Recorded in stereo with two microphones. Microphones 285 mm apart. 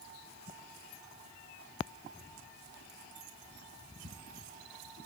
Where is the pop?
I don't hear a pop.